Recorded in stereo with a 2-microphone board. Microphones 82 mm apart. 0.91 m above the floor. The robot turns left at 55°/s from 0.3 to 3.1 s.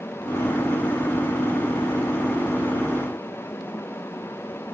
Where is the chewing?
No chewing in this recording.